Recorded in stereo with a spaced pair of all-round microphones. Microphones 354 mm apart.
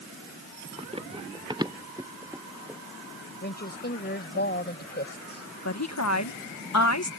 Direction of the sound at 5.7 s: 50° left (ahead or behind).